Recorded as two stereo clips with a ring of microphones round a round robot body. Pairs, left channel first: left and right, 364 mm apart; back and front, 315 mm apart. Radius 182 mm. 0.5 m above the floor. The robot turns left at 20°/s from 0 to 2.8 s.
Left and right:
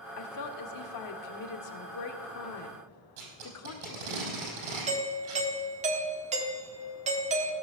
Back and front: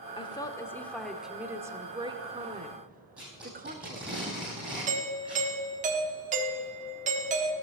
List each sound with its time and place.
0.2 s a woman speaking: 110° left, 1.2 m; by 4.2 s 55° left, 1.2 m
3.2 s tape being pulled: 85° right, 5 m
4.9 s a doorbell: 40° right, 1.3 m